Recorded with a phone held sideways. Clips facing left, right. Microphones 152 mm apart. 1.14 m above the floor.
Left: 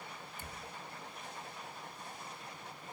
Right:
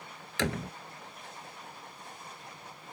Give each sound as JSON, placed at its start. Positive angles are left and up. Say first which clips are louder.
{"t": 0.4, "sound": "a door slam", "louder": "right 21 dB", "side_deg": -90}